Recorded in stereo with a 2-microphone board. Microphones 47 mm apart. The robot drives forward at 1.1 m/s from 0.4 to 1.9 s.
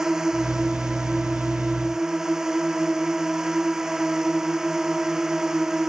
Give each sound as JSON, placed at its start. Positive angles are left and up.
{"t": 0.0, "sound": "a drone", "side_deg": -10}